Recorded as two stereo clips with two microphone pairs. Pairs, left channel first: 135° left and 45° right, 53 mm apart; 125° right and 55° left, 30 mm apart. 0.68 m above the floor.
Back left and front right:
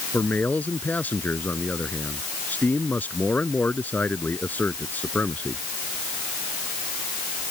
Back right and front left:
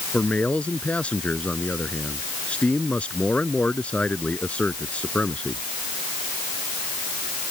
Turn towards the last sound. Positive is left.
turn(degrees=-170)